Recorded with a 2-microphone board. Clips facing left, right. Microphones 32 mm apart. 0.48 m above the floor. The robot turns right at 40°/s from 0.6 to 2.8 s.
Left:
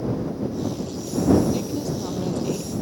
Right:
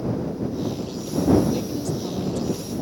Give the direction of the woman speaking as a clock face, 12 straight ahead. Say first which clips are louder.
Even; 12 o'clock.